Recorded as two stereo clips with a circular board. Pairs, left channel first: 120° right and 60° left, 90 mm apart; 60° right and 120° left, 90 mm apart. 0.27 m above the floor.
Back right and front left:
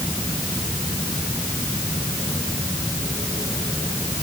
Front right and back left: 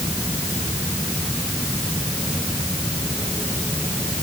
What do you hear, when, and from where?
Only background noise.